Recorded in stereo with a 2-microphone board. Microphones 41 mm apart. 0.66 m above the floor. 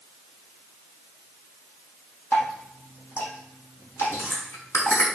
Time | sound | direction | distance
2.3 | dripping | 80° left | 5.5 m
4.0 | chewing | 85° left | 6 m